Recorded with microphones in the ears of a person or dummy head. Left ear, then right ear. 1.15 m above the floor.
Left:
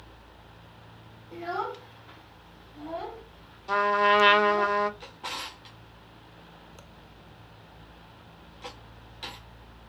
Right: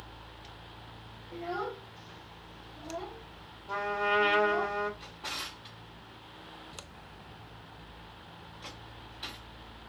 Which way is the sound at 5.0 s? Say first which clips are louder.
Left 2 dB; 10° left (ahead or behind).